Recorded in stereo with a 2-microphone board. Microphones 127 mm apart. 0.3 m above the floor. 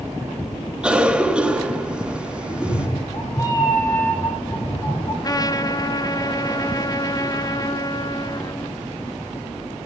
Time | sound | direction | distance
0.8 | a cough | 10° right (ahead or behind) | 3.5 m
2.5 | a cat meowing | 30° left (ahead or behind) | 3.5 m
5.2 | a trumpet | 30° left (ahead or behind) | 0.8 m